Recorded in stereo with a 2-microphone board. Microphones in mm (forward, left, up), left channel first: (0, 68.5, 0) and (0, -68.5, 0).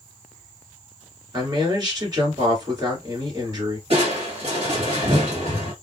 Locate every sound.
1.3 s a man speaking: 30° right (ahead or behind), 2 m
3.9 s crushing: 45° right (ahead or behind), 1.9 m